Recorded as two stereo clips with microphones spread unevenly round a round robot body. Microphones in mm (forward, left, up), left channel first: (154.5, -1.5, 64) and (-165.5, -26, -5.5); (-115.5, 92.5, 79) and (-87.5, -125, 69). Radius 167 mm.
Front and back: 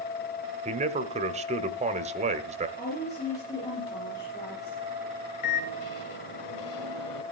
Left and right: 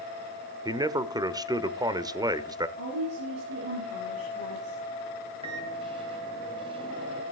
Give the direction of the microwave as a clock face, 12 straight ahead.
1 o'clock.